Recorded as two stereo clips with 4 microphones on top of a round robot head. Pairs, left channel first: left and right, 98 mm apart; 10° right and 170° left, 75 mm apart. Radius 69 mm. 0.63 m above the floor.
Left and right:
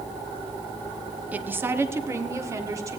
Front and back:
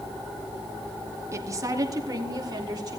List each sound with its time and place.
1.3 s a woman speaking: 160° right, 1.0 m; by 3.0 s 150° right, 2 m